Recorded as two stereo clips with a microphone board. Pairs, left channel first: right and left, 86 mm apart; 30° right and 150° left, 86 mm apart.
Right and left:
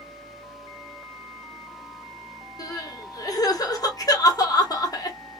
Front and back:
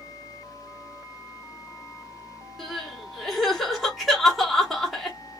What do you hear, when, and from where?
2.6 s crying: 120° right, 1.1 m